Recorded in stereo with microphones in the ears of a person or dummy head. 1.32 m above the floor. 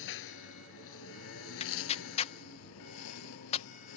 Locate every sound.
0.0 s a lawn mower: 70° left (ahead or behind); by 4.0 s 75° left (ahead or behind)
1.6 s tearing paper: 30° left (ahead or behind)